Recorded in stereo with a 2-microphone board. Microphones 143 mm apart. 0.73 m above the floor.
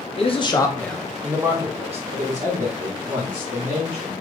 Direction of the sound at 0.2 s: 45° left (ahead or behind).